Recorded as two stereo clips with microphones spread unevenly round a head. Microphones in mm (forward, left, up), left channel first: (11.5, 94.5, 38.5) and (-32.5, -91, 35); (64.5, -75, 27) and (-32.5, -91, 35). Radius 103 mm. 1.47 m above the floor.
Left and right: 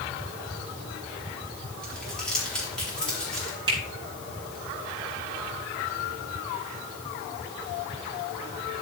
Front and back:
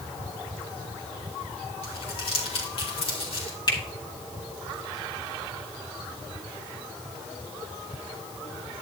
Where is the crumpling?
10° right, 4 m.